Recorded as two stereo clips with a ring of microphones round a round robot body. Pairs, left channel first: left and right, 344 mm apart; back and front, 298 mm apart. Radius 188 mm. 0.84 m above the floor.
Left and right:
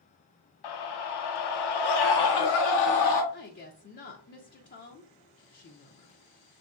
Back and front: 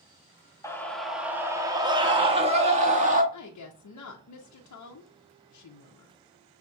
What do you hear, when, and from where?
0.6 s a scream: 100° left, 1.1 m; by 3.2 s 65° left, 2 m
3.3 s a woman speaking: 150° left, 0.7 m